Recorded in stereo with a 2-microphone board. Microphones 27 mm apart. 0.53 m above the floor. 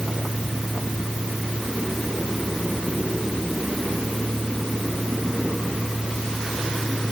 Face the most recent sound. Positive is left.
No sound to turn to.